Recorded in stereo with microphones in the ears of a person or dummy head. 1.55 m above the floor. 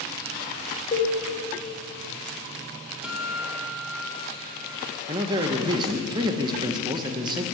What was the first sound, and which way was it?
A cowbell, 25° left (ahead or behind).